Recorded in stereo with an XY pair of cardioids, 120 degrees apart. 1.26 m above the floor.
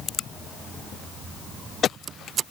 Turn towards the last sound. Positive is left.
No sound to turn to.